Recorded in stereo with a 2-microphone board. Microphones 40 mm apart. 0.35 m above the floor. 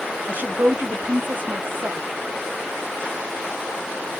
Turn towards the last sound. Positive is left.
turn(degrees=-45)  # may be behind; listen again after turning